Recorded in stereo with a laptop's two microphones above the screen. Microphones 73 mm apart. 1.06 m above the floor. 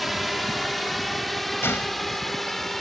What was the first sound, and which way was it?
A drone, centre (ahead or behind).